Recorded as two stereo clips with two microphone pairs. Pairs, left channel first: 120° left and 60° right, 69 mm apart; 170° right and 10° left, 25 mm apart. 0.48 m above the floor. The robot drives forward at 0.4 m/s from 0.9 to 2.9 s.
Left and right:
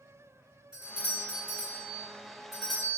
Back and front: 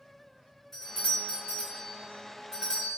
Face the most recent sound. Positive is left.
turn(degrees=-155)